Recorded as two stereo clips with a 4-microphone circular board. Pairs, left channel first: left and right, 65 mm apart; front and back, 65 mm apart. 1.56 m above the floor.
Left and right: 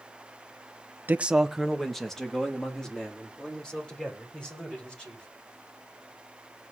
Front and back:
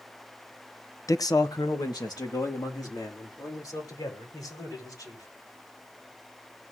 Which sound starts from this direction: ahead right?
A man speaking, at 1.1 s.